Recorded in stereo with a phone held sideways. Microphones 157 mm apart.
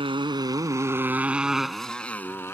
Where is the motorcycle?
35° right (ahead or behind); by 2.5 s 15° left (ahead or behind).